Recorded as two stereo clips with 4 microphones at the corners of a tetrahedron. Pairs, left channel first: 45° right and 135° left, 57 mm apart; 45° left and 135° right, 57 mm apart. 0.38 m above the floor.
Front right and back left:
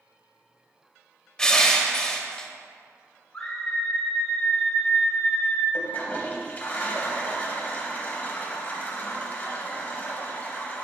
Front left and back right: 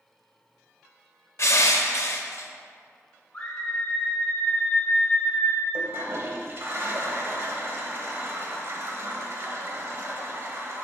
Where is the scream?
15° left, 1.5 m.